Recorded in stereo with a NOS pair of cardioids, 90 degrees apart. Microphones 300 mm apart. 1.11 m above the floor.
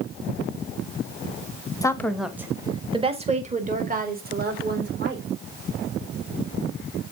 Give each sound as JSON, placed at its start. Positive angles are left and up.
{"t": 1.8, "sound": "a woman speaking", "azimuth_deg": 10, "distance_m": 1.0}